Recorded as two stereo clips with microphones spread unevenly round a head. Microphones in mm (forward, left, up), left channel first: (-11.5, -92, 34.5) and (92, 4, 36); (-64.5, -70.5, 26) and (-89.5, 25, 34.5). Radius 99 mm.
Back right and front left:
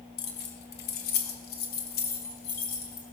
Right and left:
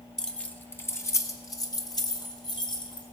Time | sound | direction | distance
0.2 | keys jangling | 165° right | 1.4 m